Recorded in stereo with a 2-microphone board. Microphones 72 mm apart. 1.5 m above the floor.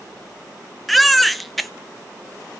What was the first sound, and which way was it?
A baby crying, centre (ahead or behind).